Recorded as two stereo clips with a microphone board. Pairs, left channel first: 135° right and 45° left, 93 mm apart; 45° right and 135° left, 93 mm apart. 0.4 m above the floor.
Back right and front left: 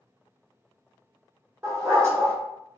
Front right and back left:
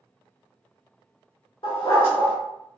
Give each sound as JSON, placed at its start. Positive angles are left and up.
{"t": 1.6, "sound": "a dog barking", "azimuth_deg": -15, "distance_m": 1.2}